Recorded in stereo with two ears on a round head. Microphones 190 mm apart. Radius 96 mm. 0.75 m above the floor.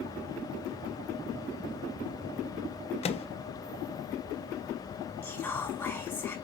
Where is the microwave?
30° left (ahead or behind), 0.7 m.